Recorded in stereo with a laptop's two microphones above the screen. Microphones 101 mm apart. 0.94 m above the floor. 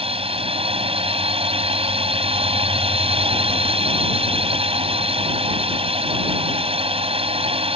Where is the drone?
75° right (ahead or behind).